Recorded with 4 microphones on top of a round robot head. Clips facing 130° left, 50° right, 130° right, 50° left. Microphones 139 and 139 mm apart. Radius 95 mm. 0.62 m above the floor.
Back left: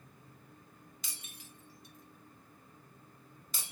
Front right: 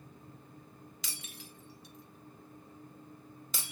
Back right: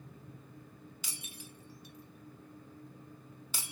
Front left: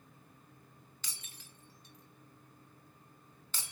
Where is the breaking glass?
50° right, 1.7 m.